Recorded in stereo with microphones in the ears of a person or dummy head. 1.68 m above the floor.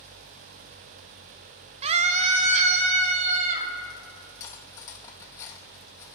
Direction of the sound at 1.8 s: 35° right (ahead or behind).